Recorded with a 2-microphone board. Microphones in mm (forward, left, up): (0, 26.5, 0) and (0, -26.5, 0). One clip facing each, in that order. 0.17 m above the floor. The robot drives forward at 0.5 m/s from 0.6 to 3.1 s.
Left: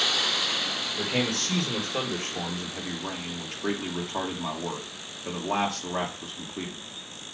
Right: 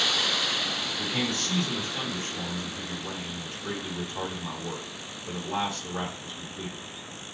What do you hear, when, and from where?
1.0 s a man speaking: 55° left (ahead or behind), 4.5 m; by 6.8 s 65° left (ahead or behind), 4 m